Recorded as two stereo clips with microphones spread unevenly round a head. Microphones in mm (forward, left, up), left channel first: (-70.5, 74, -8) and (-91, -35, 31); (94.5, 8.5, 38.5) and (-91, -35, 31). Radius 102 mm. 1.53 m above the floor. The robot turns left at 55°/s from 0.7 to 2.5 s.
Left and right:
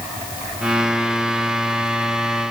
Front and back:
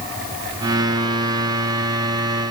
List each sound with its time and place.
Only background noise.